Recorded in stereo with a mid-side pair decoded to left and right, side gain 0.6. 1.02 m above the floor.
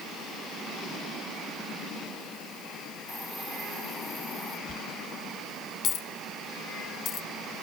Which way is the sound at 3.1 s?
5° right.